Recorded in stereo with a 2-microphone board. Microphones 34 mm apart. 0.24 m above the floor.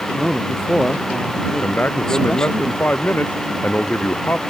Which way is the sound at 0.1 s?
20° left (ahead or behind).